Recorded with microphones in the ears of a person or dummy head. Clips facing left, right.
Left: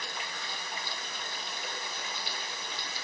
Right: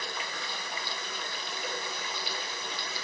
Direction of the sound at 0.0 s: 70° right (ahead or behind).